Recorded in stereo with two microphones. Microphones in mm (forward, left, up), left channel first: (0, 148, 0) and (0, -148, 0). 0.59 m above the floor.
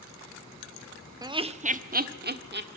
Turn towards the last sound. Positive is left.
turn(degrees=-35)  # may be behind; listen again after turning